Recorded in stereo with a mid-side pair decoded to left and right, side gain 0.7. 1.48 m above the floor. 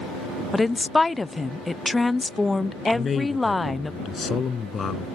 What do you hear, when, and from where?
0.5 s a woman speaking: 15° left
2.9 s a man speaking: 25° left